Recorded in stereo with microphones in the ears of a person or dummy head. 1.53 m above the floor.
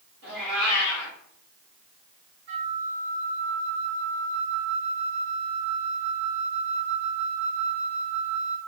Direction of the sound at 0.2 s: 65° right (ahead or behind).